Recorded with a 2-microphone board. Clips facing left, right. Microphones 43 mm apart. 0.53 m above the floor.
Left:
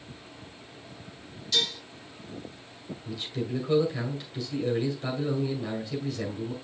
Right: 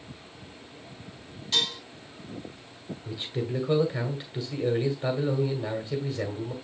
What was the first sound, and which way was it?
Dishes clattering, 30° right (ahead or behind).